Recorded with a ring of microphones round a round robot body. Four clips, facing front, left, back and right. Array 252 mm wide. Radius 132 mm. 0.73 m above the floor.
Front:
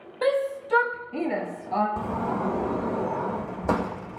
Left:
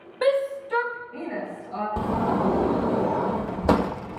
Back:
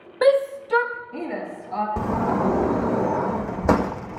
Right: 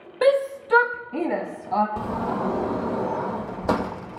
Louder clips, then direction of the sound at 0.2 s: Right 3 dB, back 6 dB; 145° right.